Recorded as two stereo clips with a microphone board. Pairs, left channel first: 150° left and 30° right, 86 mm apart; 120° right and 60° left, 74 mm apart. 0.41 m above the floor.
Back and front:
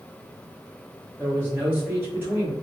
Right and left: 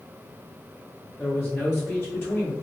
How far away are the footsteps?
No footsteps in this recording.